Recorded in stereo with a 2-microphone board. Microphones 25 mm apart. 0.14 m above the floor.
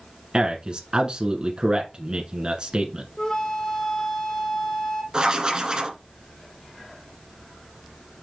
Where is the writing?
40° right (ahead or behind), 1.4 m.